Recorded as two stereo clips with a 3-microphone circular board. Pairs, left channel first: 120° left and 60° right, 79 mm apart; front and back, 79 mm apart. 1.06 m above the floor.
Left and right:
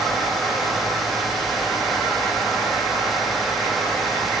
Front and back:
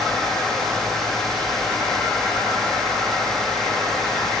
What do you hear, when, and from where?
Only background noise.